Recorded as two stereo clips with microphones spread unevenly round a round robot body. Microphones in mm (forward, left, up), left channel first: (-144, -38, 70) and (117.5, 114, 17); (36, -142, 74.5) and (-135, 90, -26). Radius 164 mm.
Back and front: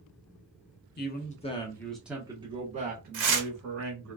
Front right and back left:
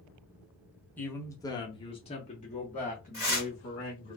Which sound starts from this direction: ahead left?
Tearing paper, at 3.1 s.